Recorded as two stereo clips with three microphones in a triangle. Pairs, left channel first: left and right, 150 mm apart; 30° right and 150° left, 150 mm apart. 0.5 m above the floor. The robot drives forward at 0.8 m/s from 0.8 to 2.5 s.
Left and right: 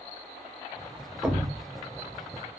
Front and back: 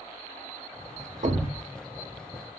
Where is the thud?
170° right, 0.5 m; by 1.6 s 175° right, 0.8 m.